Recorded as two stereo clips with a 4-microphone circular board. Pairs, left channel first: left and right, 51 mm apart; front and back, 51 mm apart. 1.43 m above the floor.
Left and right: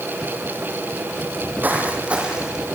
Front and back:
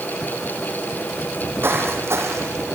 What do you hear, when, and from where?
1.3 s footsteps: 135° right, 3.5 m; by 2.6 s 165° right, 4 m